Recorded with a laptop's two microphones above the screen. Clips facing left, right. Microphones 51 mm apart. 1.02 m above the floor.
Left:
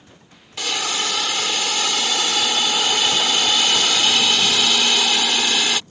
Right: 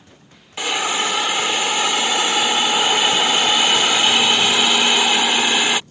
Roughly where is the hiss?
Right.